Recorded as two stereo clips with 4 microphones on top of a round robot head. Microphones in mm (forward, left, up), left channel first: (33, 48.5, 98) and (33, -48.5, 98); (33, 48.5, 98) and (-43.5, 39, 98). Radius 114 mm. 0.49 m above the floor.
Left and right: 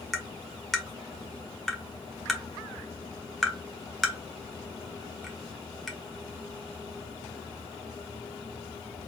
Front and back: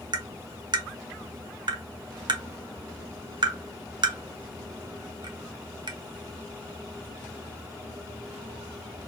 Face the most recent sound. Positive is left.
turn(degrees=180)